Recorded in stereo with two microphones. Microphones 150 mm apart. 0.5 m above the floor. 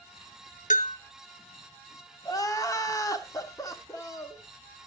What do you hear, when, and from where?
0.7 s a bell: 55° left (ahead or behind), 0.8 m
2.2 s crying: 25° left (ahead or behind), 1.2 m